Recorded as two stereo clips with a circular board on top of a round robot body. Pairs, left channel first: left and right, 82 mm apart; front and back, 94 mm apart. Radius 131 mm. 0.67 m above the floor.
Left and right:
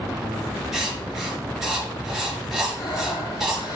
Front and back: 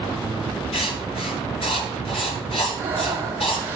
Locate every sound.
0.7 s writing: 5° right, 6.5 m
2.7 s breathing: 115° left, 4 m